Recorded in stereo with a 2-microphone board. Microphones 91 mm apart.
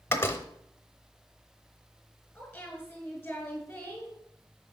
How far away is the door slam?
About 0.9 m.